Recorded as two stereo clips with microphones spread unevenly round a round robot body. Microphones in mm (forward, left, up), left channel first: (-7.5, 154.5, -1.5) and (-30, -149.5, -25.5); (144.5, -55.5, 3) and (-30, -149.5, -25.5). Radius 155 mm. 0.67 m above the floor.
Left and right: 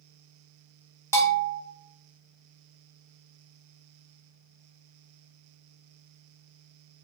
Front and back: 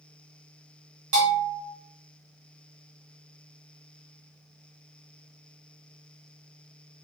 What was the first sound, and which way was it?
A bell, 165° left.